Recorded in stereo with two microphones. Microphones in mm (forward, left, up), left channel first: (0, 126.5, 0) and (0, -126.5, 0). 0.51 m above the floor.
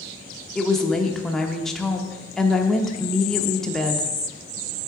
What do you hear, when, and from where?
0.6 s a woman speaking: centre (ahead or behind), 0.6 m